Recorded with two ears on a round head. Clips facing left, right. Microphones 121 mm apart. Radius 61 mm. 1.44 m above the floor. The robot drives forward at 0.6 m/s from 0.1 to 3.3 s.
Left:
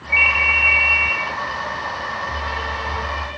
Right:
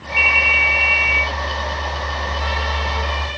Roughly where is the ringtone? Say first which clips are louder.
Right 1 dB; centre.